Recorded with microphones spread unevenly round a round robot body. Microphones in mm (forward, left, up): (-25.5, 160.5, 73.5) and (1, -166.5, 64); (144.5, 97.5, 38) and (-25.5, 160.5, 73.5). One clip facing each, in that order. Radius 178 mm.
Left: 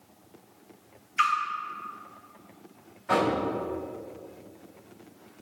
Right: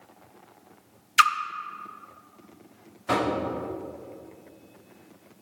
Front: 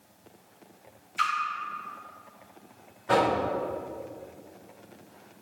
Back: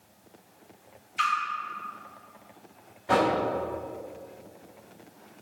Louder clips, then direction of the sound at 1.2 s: Right 5 dB, back 1 dB; 115° right.